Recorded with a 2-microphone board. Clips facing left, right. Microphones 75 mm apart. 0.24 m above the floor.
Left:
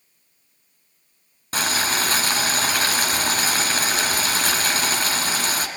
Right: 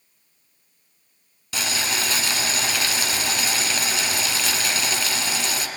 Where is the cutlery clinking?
No cutlery clinking in this recording.